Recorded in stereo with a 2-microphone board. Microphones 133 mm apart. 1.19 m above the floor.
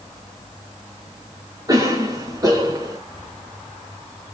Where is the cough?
30° right (ahead or behind), 1.2 m.